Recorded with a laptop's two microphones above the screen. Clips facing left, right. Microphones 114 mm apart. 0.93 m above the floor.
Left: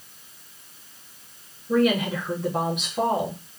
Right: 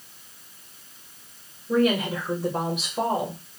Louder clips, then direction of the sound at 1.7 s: Left 1 dB; 5° right (ahead or behind).